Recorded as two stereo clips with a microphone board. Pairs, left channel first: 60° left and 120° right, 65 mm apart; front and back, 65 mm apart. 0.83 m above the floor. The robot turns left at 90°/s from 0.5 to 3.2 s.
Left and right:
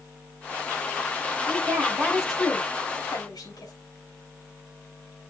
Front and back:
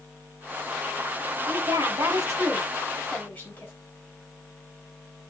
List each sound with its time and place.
1.5 s a woman speaking: 145° right, 5.5 m; by 3.7 s 60° left, 5.5 m